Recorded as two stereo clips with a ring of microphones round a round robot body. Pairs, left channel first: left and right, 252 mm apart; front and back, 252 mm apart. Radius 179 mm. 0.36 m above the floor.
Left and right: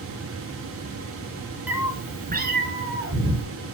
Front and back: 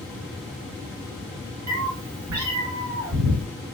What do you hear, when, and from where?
1.7 s a cat meowing: 175° right, 1.5 m; by 3.5 s 120° right, 3 m